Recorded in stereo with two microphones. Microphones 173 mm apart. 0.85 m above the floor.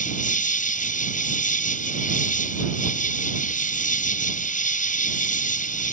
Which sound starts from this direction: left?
An insect, at 0.0 s.